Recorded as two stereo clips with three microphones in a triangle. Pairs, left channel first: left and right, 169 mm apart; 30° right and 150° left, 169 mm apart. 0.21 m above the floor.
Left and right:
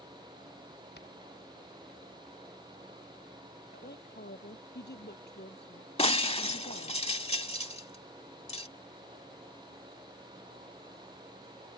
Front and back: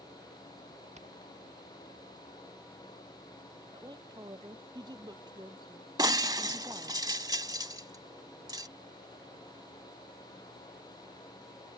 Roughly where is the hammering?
Left.